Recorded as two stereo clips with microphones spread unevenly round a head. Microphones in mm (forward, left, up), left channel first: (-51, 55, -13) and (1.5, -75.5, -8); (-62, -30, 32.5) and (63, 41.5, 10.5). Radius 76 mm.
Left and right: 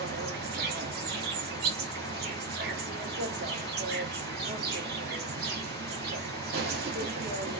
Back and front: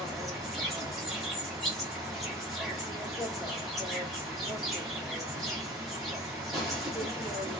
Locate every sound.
0.0 s an insect: 65° right, 0.8 m